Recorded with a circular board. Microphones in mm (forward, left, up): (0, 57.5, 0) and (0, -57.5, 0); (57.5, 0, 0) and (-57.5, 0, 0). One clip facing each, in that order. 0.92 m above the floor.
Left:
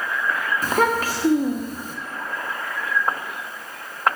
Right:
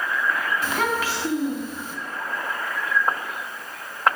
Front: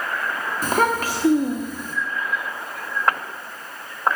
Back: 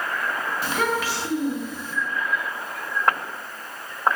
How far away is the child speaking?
About 0.8 m.